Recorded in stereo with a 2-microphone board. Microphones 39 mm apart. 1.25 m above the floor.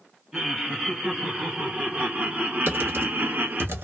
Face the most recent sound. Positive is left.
turn(degrees=-70)  # may be behind; listen again after turning